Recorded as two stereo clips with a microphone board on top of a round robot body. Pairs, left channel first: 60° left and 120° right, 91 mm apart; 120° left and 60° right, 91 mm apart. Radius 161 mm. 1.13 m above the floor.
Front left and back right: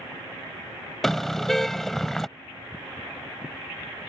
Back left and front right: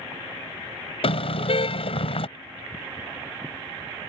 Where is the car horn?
150° left.